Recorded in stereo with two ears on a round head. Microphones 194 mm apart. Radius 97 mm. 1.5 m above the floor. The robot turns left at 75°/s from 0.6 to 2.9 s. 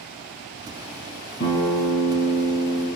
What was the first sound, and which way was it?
A guitar, 115° left.